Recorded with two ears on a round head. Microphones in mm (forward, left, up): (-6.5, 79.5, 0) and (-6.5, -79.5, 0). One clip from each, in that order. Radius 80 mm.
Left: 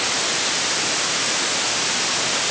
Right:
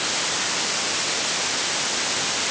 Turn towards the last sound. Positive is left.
No sound to turn to.